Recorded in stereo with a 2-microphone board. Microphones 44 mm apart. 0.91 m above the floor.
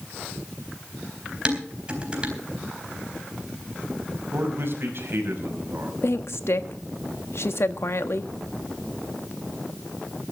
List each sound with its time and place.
1.4 s dishes clattering: 25° right (ahead or behind), 3.5 m
4.3 s a man speaking: 60° right (ahead or behind), 5 m
6.0 s a woman speaking: 70° left (ahead or behind), 1.2 m